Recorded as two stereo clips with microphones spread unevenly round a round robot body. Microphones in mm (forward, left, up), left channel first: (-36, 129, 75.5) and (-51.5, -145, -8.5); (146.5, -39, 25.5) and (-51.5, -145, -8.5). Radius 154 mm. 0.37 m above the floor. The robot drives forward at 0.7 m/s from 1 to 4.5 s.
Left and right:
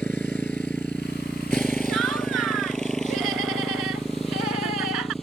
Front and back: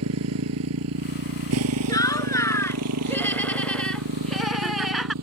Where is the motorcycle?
170° left; by 5.2 s 175° left.